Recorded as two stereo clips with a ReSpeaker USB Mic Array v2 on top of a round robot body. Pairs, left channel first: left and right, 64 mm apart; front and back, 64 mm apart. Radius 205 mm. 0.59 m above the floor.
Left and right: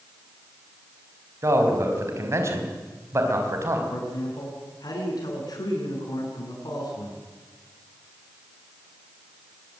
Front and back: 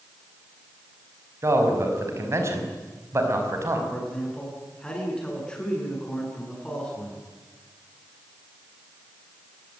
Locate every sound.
1.4 s a man speaking: 135° right, 5.5 m
3.9 s a man speaking: 75° left, 9 m